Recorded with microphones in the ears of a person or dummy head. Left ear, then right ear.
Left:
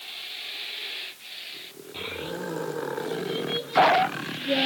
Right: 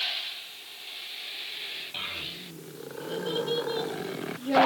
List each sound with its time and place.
1.9 s a child speaking: 70° right (ahead or behind), 2.5 m; by 4.7 s 75° right (ahead or behind), 1.3 m